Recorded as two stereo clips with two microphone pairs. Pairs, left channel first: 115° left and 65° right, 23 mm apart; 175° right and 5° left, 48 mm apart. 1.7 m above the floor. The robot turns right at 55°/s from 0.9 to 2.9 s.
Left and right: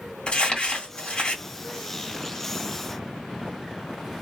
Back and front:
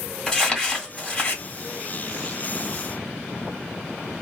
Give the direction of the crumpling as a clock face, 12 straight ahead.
8 o'clock.